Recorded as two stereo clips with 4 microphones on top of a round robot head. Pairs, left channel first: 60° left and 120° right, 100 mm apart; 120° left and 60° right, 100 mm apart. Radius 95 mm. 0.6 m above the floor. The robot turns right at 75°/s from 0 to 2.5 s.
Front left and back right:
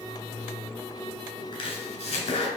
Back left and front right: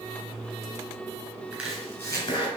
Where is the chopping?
15° left, 3 m; by 2.5 s 85° left, 3 m.